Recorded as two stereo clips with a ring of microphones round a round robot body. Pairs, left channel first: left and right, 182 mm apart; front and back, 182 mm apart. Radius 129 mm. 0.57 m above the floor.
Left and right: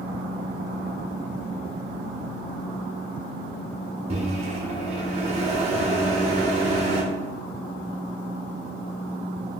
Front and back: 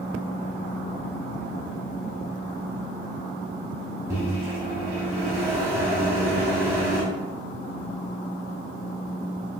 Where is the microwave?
115° right, 0.7 m.